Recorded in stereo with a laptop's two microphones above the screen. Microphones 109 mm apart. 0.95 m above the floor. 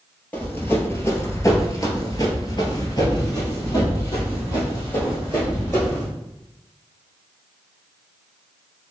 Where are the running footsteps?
20° left (ahead or behind), 1.3 m; by 6.1 s 30° left (ahead or behind), 2.5 m.